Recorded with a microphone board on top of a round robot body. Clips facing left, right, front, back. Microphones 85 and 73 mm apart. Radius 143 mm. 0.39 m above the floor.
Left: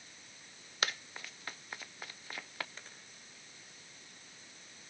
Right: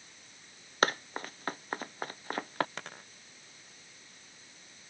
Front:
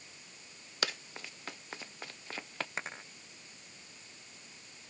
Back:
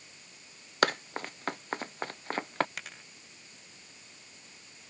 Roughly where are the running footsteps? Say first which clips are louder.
Right 9 dB, back 11 dB; behind right.